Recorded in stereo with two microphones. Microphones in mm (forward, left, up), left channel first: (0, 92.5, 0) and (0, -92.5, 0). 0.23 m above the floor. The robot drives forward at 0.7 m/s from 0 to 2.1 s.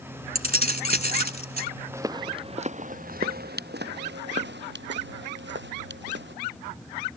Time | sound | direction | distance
0.3 | keys jangling | 60° right (ahead or behind) | ?
1.9 | footsteps | 15° right (ahead or behind) | ?